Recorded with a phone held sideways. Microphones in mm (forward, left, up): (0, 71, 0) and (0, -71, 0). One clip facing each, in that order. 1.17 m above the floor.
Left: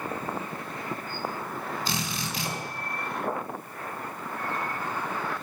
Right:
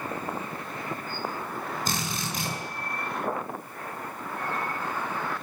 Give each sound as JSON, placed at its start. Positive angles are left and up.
{"t": 1.9, "sound": "a drill", "side_deg": -50, "distance_m": 9.0}